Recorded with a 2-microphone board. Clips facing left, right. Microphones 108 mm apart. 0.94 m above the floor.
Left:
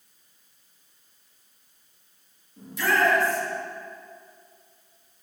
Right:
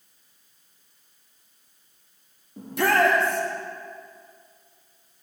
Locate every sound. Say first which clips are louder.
2.6 s a shout: right 3 dB; 60° right (ahead or behind), 1.4 m